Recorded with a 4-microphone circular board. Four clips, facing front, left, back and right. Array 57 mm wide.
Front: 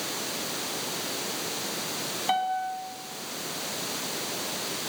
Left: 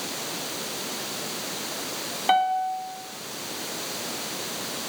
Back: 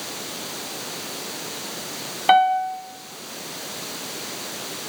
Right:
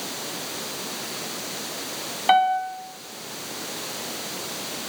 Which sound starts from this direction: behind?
A piano, at 2.3 s.